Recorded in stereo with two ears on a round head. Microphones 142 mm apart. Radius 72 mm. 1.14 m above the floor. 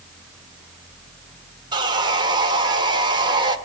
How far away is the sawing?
About 1.6 m.